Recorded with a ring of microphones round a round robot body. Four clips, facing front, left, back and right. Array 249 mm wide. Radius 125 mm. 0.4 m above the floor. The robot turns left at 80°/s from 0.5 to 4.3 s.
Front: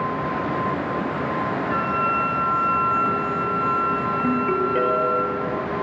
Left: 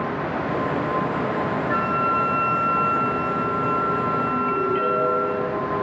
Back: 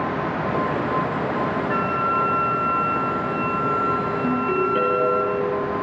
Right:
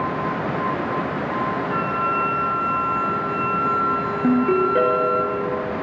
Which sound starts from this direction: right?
A ringtone, at 4.2 s.